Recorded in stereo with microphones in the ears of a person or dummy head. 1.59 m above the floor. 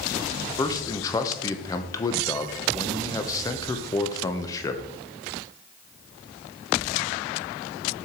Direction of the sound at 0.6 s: 20° left (ahead or behind).